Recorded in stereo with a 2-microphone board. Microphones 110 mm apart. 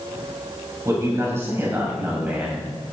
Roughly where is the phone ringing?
No phone ringing in this recording.